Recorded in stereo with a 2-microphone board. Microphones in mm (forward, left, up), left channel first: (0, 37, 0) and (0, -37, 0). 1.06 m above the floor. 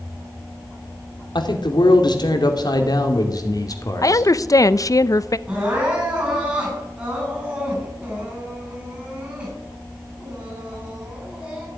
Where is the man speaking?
85° left, 2.5 m; by 4.3 s 45° left (ahead or behind), 2.5 m.